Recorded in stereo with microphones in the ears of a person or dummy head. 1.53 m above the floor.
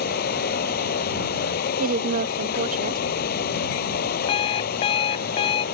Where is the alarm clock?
30° left (ahead or behind).